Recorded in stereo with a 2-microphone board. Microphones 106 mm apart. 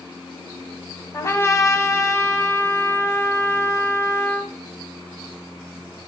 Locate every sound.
1.1 s a trumpet: 30° left (ahead or behind), 1.7 m